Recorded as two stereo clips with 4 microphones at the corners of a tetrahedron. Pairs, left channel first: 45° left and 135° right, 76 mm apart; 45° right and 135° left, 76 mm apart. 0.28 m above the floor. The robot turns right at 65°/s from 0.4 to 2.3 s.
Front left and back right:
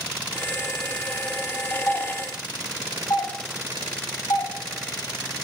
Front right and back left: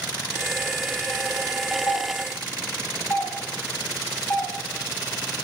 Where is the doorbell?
20° right, 3 m; by 4.5 s 10° left, 3 m.